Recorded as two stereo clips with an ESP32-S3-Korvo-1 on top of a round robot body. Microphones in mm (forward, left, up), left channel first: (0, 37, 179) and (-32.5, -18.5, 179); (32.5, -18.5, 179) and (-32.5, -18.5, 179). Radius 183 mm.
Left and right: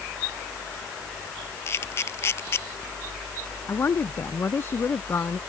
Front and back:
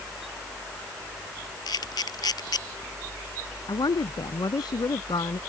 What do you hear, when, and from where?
1.7 s a camera shutter: 10° left
3.7 s a woman speaking: 5° left